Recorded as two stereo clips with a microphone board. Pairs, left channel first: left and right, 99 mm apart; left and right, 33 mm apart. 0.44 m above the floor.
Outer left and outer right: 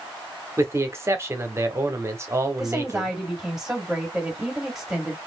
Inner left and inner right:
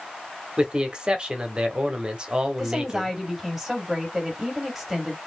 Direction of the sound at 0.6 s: 25° right (ahead or behind).